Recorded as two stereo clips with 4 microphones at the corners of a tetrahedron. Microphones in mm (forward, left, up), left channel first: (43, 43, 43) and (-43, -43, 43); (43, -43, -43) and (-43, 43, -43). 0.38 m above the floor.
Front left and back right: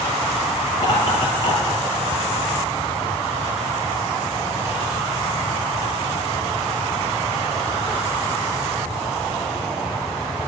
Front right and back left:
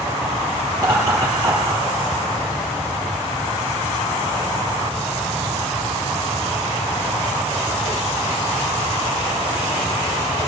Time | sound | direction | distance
0.7 | laughter | 75° left | 5.5 m